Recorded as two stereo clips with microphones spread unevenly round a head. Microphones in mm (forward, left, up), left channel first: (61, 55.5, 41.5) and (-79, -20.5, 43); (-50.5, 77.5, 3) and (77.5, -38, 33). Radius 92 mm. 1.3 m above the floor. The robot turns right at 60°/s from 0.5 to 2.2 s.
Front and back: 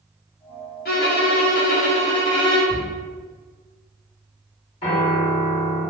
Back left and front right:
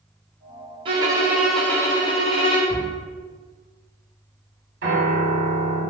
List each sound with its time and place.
0.8 s a violin: straight ahead, 0.8 m; by 2.8 s 80° left, 0.8 m
2.7 s a cupboard door: 10° right, 1.6 m
4.8 s a piano: 30° right, 1.7 m